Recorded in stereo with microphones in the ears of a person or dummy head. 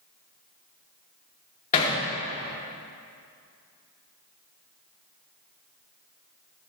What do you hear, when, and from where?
1.7 s hammering: 30° left (ahead or behind), 3.5 m